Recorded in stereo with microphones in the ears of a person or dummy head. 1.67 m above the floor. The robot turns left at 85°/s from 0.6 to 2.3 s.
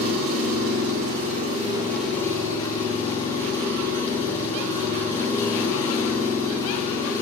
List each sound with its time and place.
0.0 s an engine running: 50° right, 4 m; by 7.2 s 165° left, 4 m